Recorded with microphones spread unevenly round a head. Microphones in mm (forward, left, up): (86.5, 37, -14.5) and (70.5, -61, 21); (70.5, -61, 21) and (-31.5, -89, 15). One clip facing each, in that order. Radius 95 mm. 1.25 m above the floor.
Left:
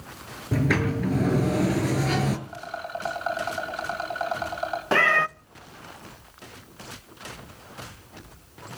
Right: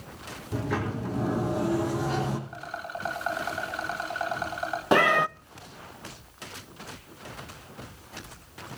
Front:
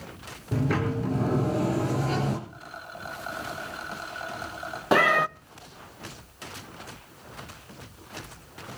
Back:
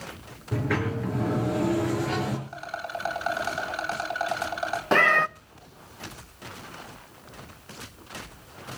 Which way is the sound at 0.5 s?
90° left.